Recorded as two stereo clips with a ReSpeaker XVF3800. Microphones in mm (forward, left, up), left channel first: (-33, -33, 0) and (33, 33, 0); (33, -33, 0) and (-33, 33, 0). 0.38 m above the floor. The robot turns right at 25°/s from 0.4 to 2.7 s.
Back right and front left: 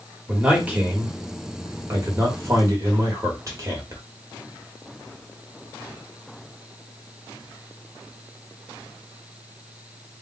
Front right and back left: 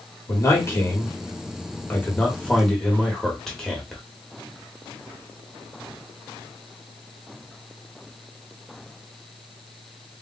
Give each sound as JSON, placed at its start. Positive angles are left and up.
{"t": 0.3, "sound": "a man speaking", "azimuth_deg": -20, "distance_m": 1.2}